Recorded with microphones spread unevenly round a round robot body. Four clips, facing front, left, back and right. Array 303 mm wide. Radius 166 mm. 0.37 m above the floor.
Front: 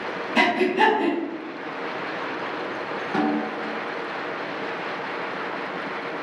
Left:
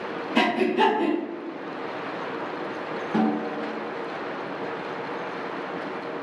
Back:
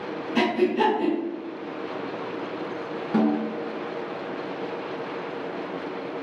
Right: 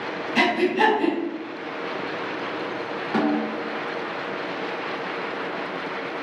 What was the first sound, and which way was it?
Breathing, 130° left.